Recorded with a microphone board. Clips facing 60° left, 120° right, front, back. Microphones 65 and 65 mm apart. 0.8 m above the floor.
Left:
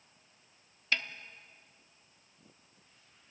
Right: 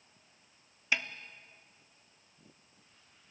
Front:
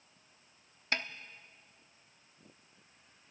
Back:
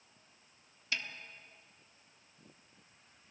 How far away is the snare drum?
About 0.9 m.